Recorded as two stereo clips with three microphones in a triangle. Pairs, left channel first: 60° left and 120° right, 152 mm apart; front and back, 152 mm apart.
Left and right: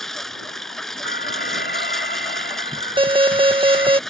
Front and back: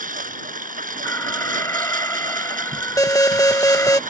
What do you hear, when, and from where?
0.0 s a lawn mower: 145° left
1.1 s an alarm: 75° left
3.0 s an alarm: 65° right